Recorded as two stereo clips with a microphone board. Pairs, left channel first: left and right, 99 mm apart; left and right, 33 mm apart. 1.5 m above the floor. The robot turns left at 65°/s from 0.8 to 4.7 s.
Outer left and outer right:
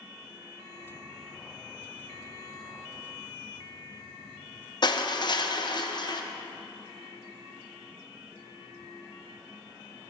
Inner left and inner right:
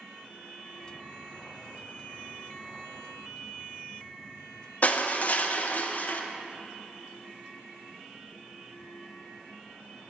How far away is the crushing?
About 0.7 m.